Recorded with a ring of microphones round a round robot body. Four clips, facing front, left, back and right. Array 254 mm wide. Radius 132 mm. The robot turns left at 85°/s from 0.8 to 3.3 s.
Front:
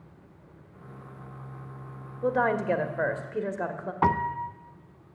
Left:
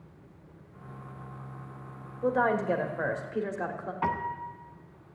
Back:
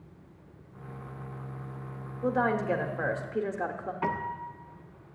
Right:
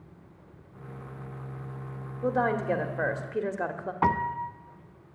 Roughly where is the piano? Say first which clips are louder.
Right 5 dB, front 8 dB; ahead right.